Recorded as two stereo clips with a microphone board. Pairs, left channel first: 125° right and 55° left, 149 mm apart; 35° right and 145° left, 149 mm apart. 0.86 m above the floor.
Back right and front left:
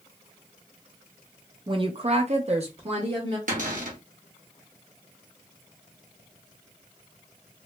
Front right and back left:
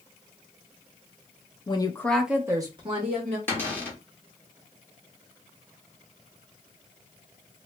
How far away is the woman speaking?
About 0.5 m.